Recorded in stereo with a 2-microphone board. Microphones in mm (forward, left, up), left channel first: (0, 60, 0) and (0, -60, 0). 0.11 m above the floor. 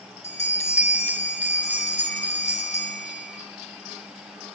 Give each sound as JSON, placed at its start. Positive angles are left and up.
{"t": 0.2, "sound": "a bell", "side_deg": 70, "distance_m": 2.0}